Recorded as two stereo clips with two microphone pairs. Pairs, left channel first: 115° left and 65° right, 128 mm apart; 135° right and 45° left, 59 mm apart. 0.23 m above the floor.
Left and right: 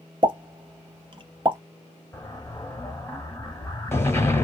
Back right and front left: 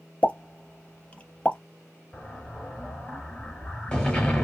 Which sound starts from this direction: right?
A pop, at 0.2 s.